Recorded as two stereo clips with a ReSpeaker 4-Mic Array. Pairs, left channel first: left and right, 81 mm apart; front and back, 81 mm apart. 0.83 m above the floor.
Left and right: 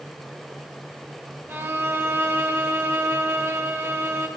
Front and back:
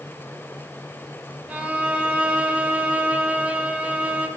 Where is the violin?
125° right, 1.0 m.